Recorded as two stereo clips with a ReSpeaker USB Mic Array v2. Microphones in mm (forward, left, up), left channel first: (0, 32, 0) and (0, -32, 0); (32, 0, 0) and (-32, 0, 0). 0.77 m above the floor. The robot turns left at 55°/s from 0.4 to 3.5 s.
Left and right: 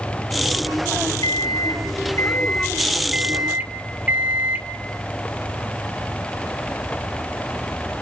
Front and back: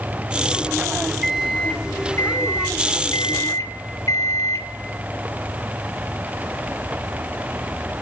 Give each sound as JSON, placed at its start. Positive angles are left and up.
{"t": 1.2, "sound": "a microwave", "azimuth_deg": 100, "distance_m": 2.0}